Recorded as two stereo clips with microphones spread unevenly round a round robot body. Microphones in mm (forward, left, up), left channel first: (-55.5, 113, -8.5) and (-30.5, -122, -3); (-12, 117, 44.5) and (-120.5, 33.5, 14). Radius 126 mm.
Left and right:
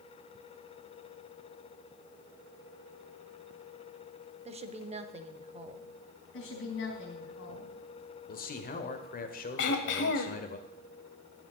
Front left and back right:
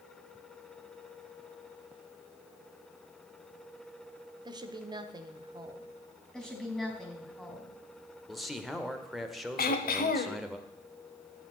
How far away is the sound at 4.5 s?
About 1.0 m.